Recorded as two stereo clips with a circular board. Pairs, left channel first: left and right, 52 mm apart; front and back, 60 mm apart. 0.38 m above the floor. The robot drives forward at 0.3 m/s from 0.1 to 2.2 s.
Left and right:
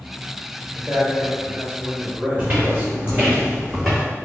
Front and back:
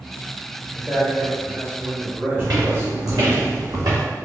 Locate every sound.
0.7 s a man speaking: 115° right, 1.0 m; by 3.4 s 145° right, 1.2 m
2.4 s footsteps: 150° right, 1.7 m; by 4.0 s straight behind, 1.2 m